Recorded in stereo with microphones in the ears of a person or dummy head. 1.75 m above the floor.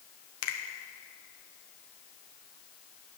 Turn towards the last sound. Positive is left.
turn(degrees=80)